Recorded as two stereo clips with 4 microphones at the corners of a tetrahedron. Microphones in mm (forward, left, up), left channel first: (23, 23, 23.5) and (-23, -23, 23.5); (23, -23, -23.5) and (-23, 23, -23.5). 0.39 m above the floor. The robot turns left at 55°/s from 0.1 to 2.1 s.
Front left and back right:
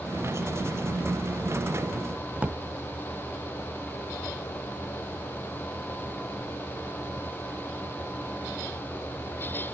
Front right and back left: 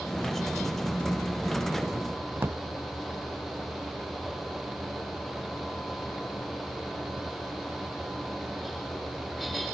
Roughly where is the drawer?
Behind.